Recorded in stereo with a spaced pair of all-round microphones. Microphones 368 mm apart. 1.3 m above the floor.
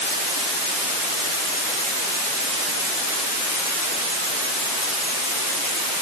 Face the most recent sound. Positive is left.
No sound to turn to.